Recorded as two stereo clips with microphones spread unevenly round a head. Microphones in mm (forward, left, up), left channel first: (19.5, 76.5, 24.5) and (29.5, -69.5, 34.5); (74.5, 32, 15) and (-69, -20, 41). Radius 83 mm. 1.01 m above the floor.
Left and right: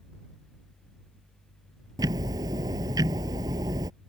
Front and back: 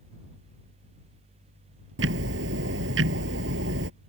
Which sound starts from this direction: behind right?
Ticking, at 2.0 s.